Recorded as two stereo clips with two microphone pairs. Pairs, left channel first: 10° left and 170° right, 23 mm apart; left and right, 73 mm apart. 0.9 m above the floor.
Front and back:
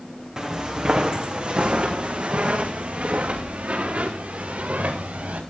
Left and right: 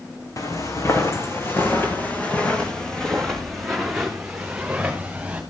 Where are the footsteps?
130° left, 3.5 m; by 5.4 s 165° right, 5 m.